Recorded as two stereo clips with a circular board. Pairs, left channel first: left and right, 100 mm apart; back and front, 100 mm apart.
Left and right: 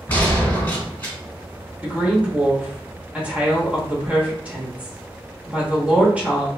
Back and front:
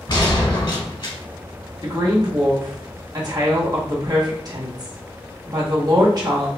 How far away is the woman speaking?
About 0.9 m.